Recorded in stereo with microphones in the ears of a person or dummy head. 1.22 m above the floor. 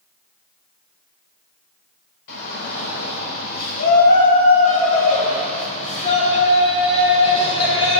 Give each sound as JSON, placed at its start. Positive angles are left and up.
{"t": 2.3, "sound": "a shout", "side_deg": 65, "distance_m": 4.0}